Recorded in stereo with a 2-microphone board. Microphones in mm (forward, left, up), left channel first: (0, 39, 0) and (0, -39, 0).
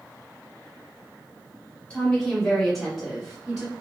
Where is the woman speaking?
15° left (ahead or behind), 1.5 m; by 3.7 s 15° right (ahead or behind), 1.3 m.